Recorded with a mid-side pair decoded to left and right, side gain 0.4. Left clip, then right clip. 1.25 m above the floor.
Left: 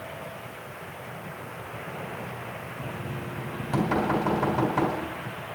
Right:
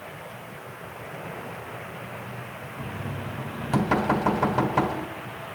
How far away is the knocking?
About 3 m.